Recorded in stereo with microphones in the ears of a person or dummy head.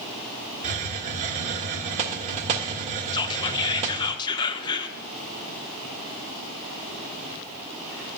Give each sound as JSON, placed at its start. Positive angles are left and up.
{"t": 0.6, "sound": "a hiss", "side_deg": -40, "distance_m": 1.1}
{"t": 3.1, "sound": "whispering", "side_deg": 25, "distance_m": 0.8}